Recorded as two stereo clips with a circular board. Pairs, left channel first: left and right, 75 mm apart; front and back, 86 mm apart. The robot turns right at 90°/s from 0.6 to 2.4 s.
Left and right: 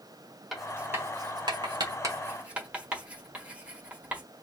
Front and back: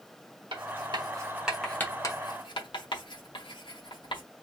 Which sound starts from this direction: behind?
Writing, at 0.5 s.